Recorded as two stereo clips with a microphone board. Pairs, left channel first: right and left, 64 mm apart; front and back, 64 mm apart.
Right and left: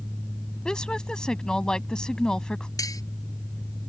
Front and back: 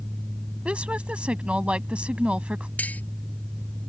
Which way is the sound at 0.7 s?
145° right.